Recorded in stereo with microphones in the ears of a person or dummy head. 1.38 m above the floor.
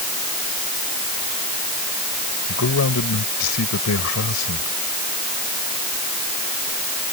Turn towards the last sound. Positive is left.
turn(degrees=75)  # may be behind; listen again after turning